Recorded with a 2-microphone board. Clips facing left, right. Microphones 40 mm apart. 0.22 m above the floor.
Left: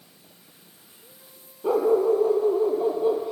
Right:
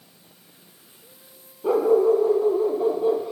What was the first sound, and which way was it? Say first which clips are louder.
A dog barking: right 2 dB; centre (ahead or behind).